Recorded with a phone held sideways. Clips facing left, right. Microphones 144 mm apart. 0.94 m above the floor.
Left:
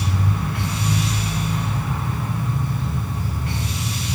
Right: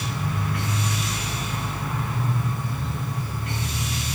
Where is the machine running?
35° left (ahead or behind), 2.5 m.